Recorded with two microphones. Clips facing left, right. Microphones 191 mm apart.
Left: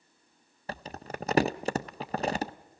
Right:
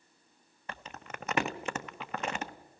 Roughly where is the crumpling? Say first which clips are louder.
Left 6 dB; left.